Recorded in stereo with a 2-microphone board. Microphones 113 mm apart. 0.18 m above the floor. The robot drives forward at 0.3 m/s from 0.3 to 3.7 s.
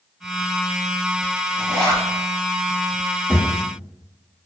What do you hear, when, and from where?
1.6 s a zipper: 35° right (ahead or behind), 1.8 m
3.3 s a thud: 15° right (ahead or behind), 1.7 m